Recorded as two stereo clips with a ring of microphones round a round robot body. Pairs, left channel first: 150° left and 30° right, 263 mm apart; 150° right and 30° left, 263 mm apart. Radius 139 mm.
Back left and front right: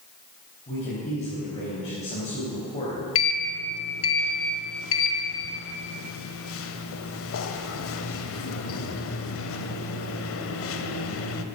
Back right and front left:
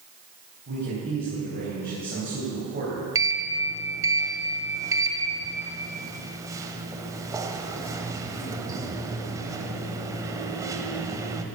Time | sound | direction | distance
0.7 | a man speaking | 85° left | 4 m
3.1 | a sliding door | 110° left | 1.1 m